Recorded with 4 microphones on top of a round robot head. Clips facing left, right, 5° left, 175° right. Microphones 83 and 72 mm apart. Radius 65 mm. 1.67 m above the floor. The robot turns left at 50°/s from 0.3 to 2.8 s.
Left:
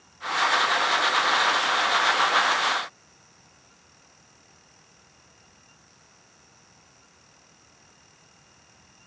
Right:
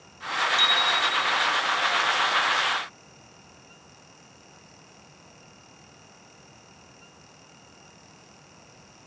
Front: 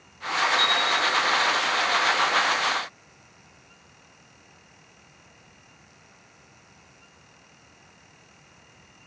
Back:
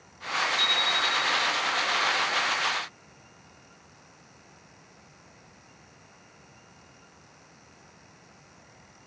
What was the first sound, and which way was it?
A bicycle bell, 100° right.